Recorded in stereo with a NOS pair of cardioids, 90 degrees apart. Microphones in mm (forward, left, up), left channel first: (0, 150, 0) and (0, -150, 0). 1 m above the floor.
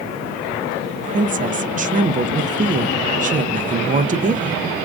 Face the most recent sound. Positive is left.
turn(degrees=-25)